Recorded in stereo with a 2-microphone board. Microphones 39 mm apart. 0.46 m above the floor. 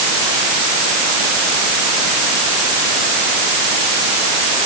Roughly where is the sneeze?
I don't hear a sneeze.